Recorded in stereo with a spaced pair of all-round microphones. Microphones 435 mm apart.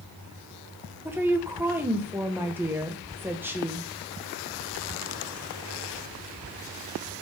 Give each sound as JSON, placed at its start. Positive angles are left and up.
{"t": 1.1, "sound": "a woman speaking", "side_deg": -5, "distance_m": 1.4}